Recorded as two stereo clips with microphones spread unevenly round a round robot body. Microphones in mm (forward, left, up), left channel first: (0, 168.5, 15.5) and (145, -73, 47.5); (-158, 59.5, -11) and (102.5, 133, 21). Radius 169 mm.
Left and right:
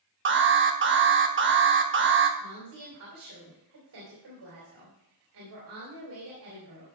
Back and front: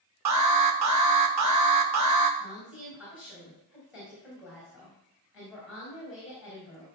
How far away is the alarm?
About 1.4 m.